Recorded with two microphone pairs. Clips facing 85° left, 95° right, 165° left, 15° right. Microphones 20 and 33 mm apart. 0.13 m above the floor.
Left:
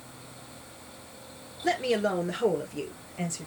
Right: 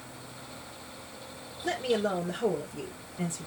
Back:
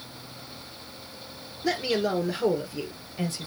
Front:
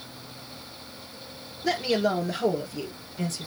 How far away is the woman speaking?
About 2.0 m.